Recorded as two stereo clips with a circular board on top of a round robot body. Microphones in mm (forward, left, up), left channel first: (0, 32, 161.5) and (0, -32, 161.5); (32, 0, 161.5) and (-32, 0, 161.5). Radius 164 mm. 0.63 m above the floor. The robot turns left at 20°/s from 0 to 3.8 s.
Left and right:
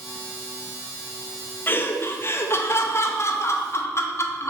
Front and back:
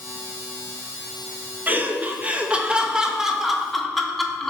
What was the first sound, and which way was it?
Laughter, 130° left.